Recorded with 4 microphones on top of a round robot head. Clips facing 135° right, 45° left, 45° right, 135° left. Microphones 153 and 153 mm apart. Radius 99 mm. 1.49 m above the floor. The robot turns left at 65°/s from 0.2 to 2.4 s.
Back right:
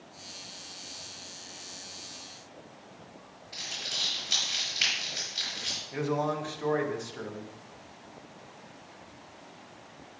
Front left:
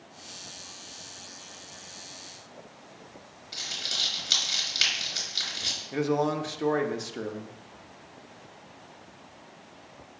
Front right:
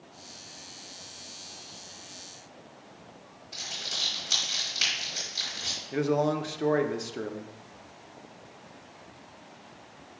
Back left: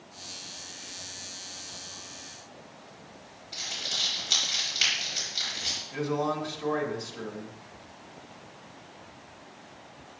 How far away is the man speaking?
About 0.8 m.